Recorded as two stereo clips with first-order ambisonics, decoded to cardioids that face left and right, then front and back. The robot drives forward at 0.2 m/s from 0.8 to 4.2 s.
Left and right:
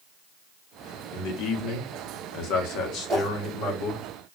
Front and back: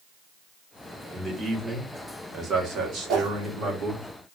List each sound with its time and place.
1.1 s a man speaking: 95° left, 0.8 m; by 4.0 s 135° left, 1.0 m
3.1 s a whoosh: 160° right, 0.9 m